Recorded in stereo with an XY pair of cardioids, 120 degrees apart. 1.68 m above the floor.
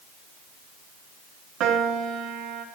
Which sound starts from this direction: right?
A piano, at 1.6 s.